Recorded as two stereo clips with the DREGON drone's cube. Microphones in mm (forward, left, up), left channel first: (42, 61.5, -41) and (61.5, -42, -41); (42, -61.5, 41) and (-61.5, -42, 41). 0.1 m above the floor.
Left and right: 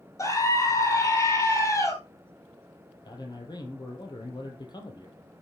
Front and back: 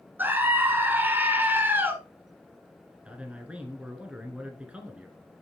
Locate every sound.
0.2 s a scream: 120° left, 1.2 m
3.0 s a man speaking: 95° left, 1.9 m